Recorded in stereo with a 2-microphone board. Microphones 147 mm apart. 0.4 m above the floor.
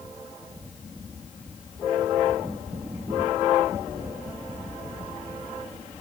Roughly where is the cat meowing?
I don't hear a cat meowing.